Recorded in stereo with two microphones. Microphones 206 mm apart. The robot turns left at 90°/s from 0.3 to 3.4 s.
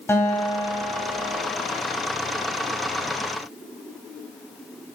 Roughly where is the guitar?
Ahead.